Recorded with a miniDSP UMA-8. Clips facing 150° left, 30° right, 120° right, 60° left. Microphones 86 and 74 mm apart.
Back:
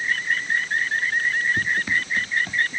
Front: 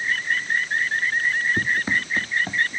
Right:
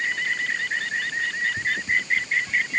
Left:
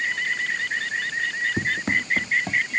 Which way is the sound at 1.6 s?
35° left.